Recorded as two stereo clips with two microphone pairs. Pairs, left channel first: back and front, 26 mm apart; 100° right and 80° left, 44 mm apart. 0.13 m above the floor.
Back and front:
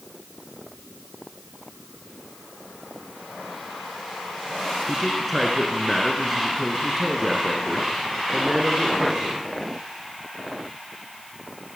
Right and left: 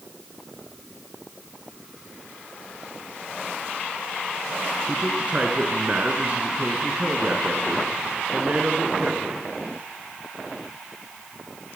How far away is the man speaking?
About 1.5 m.